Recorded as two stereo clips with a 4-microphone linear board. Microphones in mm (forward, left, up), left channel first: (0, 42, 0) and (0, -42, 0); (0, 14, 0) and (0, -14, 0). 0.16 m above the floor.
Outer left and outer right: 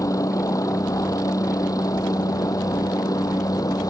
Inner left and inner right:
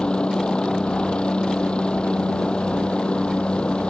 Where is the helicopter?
40° left (ahead or behind); by 3.9 s 45° left (ahead or behind).